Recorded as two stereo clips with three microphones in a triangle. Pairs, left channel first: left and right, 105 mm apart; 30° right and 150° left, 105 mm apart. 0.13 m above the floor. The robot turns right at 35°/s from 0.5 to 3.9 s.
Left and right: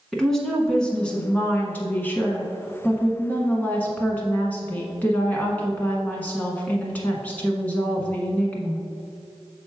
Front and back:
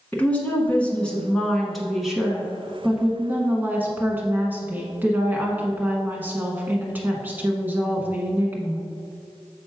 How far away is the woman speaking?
About 1.2 m.